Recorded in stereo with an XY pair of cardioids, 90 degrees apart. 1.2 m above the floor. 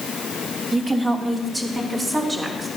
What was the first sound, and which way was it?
A woman speaking, 30° right.